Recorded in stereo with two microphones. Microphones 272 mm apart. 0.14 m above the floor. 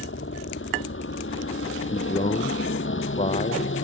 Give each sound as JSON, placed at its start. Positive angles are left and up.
{"t": 0.0, "sound": "a helicopter", "side_deg": 45}
{"t": 1.9, "sound": "a man speaking", "side_deg": 25}